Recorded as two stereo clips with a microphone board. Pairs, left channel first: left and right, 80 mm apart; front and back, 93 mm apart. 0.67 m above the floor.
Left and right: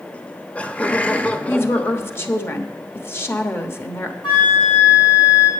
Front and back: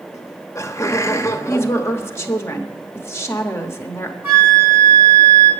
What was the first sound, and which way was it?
Laughter, 30° left.